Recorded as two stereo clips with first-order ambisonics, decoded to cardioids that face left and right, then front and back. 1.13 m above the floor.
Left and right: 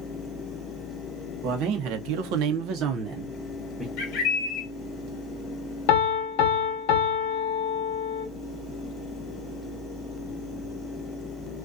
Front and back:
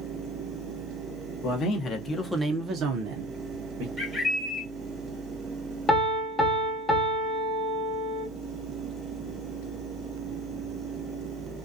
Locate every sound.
1.4 s a man speaking: 55° right, 1.0 m; by 3.9 s straight behind, 1.0 m
4.0 s a bird: 80° left, 1.0 m
5.9 s a piano: 80° left, 0.7 m